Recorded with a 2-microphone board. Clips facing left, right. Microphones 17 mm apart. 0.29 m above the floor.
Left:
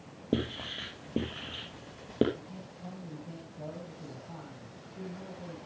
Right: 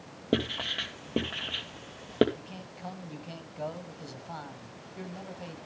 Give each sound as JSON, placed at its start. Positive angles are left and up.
{"t": 0.3, "sound": "writing", "side_deg": -40, "distance_m": 2.0}
{"t": 2.4, "sound": "a man speaking", "side_deg": -55, "distance_m": 1.8}